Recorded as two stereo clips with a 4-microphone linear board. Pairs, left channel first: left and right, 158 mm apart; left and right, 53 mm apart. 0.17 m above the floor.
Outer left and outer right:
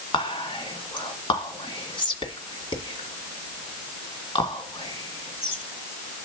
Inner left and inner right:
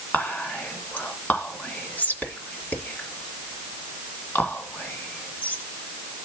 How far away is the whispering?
About 2.0 m.